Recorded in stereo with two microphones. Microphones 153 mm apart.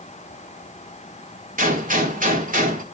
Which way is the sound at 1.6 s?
60° right (ahead or behind).